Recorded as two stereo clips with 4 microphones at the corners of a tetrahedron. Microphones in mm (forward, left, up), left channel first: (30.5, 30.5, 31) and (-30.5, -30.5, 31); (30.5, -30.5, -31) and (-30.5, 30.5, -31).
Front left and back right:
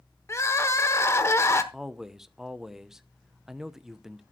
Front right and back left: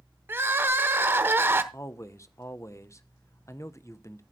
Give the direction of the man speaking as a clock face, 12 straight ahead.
2 o'clock.